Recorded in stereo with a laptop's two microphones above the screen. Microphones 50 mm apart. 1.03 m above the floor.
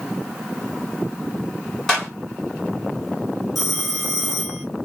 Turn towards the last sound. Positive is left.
turn(degrees=0)  # may be behind; listen again after turning